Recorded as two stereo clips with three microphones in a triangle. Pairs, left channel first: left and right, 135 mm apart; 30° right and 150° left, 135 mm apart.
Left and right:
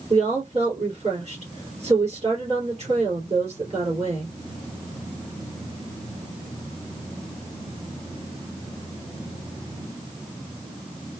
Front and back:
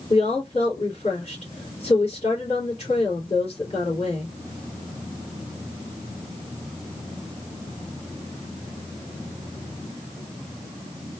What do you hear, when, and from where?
0.1 s a woman speaking: 65° right, 3 m